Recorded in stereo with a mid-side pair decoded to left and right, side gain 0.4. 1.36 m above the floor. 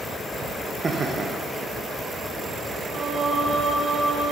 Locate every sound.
0.8 s laughter: 30° right, 1.1 m
2.9 s singing: 45° right, 1.9 m